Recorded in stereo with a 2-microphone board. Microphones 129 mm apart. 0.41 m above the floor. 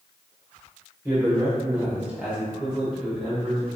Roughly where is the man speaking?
Right.